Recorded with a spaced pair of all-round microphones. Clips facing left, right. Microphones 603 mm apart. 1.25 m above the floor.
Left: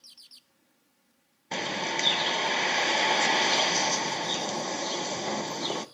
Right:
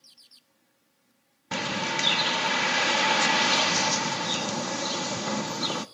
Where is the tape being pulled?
No tape being pulled in this recording.